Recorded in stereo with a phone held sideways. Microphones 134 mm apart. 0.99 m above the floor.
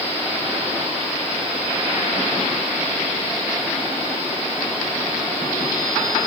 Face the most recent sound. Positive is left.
No sound to turn to.